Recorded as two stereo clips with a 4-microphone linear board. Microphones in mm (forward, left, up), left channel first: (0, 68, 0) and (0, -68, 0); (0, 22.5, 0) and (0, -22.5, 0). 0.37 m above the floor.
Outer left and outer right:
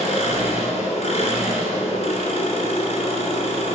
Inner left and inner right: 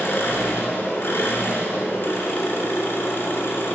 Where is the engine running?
55° left (ahead or behind), 1.8 m.